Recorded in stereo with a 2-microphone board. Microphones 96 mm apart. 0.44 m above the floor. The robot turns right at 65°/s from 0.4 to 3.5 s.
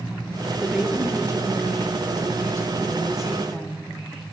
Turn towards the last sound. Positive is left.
turn(degrees=15)